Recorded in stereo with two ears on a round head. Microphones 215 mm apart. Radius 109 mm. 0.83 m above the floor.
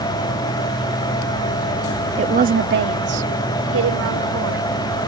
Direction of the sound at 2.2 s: 25° right (ahead or behind).